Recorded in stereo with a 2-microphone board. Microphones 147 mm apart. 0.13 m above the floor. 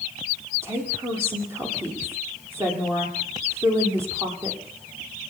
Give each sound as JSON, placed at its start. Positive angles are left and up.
{"t": 0.6, "sound": "a woman speaking", "side_deg": -15, "distance_m": 6.0}